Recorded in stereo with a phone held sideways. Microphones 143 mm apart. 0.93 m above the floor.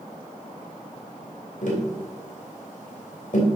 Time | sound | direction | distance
1.6 | tapping | 60° left (ahead or behind) | 2.5 m